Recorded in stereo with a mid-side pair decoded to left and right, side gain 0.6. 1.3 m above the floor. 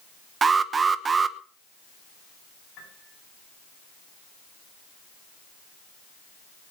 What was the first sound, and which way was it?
An alarm, 30° right.